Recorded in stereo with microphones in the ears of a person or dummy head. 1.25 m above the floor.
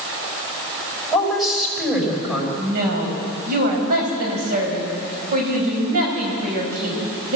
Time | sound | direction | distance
1.1 | a woman speaking | 5° right (ahead or behind) | 6 m
2.6 | a woman speaking | 55° right (ahead or behind) | 5.5 m